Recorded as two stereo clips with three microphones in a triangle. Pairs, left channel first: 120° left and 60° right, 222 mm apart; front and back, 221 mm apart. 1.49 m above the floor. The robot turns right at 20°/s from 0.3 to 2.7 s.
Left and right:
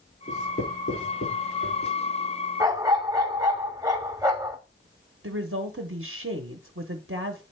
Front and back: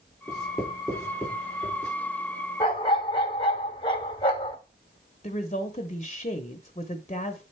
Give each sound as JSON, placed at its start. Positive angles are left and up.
{"t": 0.3, "sound": "writing", "azimuth_deg": 85, "distance_m": 5.5}
{"t": 2.6, "sound": "a dog barking", "azimuth_deg": -10, "distance_m": 1.2}
{"t": 5.2, "sound": "a woman speaking", "azimuth_deg": -60, "distance_m": 0.8}